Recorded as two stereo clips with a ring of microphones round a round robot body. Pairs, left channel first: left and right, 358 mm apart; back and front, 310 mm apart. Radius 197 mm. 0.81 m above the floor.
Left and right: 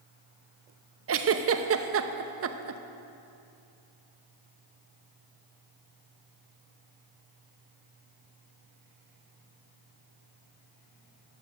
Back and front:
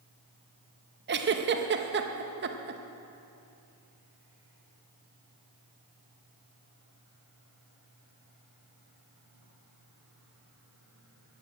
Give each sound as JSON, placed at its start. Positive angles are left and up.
{"t": 1.1, "sound": "a giggle", "azimuth_deg": -45, "distance_m": 0.8}